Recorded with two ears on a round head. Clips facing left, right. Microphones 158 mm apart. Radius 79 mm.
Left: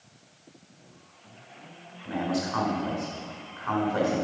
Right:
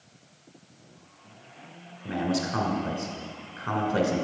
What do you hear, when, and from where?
2.0 s a man speaking: 35° right (ahead or behind), 2.5 m